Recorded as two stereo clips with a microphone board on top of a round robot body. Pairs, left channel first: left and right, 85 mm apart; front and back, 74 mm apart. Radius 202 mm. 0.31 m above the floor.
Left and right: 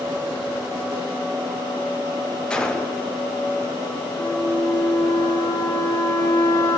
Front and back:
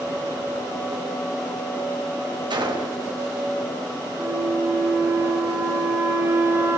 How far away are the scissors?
No scissors in this recording.